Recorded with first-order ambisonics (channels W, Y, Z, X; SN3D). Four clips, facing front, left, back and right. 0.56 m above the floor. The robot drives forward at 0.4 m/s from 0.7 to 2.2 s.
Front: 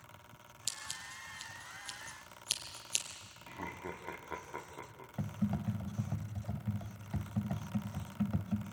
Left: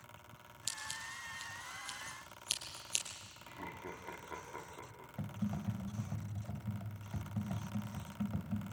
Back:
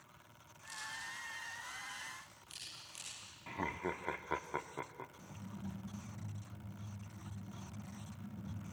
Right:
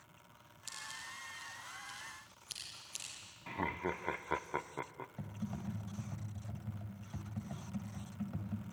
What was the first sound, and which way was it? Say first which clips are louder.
Scissors: left 3 dB, front 2 dB; 30° left.